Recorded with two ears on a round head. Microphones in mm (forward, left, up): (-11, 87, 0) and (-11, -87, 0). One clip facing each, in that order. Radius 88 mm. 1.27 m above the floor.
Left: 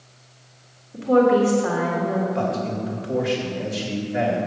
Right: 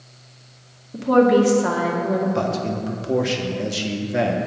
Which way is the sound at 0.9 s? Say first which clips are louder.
Right 1 dB; 55° right (ahead or behind).